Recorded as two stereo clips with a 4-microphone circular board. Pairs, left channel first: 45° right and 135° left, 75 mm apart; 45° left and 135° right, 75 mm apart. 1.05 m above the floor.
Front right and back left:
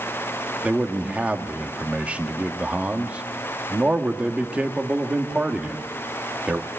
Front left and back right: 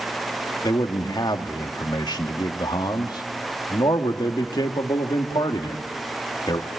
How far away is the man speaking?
About 1.9 m.